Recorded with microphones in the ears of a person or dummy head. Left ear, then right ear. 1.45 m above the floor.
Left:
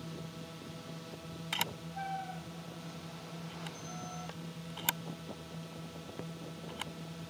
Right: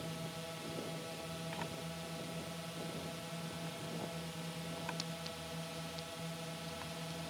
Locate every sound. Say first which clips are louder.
0.0 s a drone: right 2 dB; 30° right (ahead or behind)
1.5 s a camera shutter: left 7 dB; 80° left